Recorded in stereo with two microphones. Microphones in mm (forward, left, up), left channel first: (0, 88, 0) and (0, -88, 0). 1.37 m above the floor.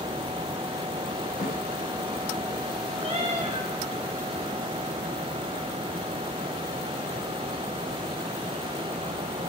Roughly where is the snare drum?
Left.